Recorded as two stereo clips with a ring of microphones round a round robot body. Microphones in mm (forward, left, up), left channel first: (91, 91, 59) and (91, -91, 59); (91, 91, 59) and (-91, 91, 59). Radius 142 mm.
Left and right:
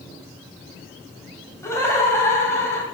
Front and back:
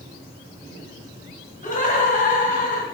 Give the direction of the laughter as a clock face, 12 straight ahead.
11 o'clock.